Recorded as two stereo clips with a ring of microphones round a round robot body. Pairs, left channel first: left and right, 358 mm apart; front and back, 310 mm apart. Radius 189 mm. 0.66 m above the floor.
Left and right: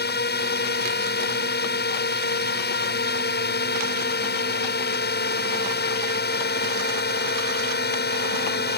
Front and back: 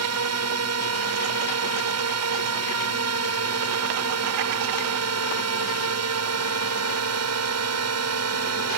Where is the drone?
150° left.